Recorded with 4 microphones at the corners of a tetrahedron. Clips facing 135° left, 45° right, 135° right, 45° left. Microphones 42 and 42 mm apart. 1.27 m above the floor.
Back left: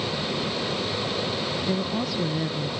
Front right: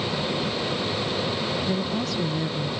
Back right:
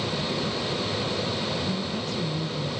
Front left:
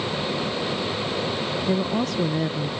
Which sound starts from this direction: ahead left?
A woman speaking, at 1.7 s.